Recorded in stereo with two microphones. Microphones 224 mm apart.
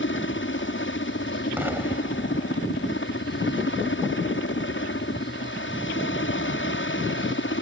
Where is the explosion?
10° right (ahead or behind).